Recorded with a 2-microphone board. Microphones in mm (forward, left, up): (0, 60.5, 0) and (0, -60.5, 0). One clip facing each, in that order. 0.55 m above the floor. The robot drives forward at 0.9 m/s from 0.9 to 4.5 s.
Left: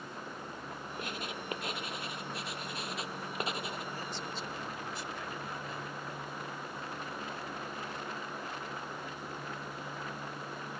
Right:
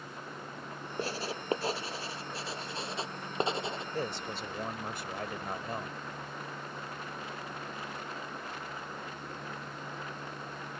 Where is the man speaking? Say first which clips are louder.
Right 4 dB; 65° right (ahead or behind); by 6.0 s 55° right (ahead or behind).